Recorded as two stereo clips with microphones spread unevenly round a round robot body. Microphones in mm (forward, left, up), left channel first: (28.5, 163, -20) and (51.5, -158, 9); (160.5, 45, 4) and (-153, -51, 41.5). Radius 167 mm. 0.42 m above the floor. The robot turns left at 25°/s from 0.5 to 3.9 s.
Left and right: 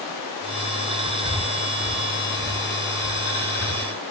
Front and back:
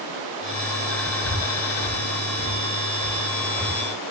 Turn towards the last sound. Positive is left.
turn(degrees=-70)